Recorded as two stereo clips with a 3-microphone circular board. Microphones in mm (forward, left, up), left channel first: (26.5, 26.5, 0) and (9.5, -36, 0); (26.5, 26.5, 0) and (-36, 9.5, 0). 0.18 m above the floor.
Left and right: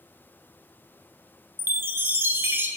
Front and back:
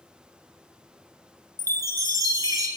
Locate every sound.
1.6 s a chime: 155° right, 0.5 m